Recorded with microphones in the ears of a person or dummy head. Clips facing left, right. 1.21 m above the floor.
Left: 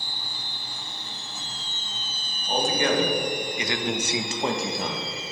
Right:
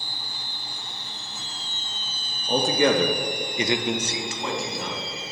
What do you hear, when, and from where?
2.5 s a man speaking: 85° right, 1.3 m; by 5.1 s 45° left (ahead or behind), 1.4 m